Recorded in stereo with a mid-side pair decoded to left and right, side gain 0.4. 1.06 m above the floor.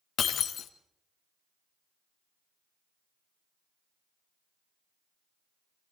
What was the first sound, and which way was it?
Breaking glass, 65° left.